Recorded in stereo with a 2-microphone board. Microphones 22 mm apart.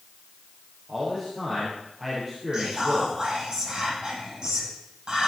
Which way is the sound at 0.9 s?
10° right (ahead or behind).